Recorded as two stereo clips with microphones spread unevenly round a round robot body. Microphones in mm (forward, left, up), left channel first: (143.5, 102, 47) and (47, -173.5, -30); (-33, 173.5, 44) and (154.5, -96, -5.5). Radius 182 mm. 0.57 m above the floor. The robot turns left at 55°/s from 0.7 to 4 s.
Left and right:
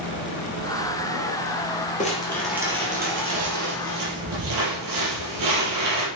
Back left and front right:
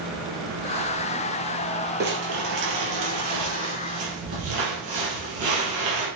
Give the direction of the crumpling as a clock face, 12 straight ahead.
12 o'clock.